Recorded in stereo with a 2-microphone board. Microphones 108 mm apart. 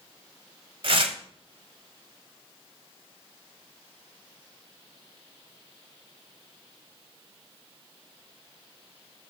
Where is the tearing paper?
60° right (ahead or behind), 1.4 m.